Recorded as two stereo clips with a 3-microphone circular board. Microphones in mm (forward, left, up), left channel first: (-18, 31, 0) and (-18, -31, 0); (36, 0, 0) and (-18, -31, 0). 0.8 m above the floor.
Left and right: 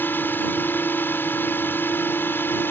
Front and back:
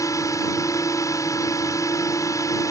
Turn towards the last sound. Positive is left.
turn(degrees=40)